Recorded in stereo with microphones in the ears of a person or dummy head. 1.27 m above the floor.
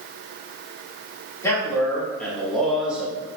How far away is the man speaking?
About 2 m.